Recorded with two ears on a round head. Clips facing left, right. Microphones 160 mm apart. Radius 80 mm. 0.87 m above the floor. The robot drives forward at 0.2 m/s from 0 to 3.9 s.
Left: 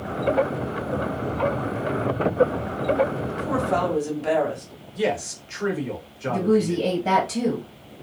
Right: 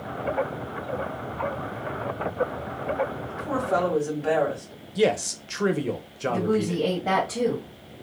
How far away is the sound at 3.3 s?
About 1.4 m.